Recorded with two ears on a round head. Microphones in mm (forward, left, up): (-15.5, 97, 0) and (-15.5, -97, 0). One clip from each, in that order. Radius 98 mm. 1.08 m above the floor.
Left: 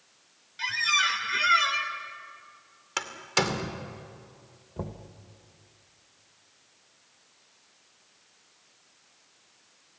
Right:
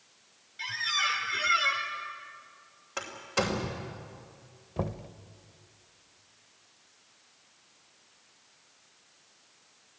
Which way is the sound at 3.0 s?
75° left (ahead or behind).